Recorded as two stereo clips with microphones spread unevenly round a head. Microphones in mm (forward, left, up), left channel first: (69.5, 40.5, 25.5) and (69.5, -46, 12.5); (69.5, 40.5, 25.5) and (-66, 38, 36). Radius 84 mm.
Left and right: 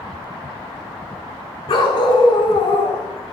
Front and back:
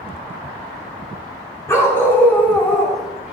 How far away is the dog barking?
About 3.5 m.